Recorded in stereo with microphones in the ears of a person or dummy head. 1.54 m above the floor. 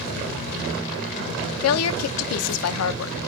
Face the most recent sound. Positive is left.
turn(degrees=80)